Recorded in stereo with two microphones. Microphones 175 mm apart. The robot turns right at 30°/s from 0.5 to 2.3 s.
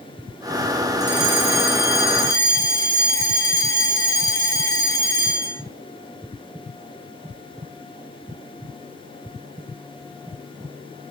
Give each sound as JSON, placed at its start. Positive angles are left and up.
{"t": 1.0, "sound": "a fire alarm", "azimuth_deg": -100, "distance_m": 5.5}